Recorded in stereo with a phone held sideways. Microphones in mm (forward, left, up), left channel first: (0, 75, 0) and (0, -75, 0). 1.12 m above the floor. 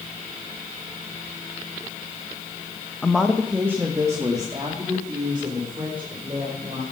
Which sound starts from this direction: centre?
A woman speaking, at 3.0 s.